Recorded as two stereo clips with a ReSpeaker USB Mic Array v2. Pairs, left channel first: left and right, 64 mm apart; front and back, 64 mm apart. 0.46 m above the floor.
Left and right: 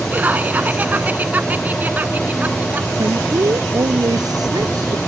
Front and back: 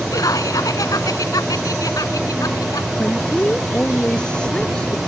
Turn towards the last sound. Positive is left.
turn(degrees=-75)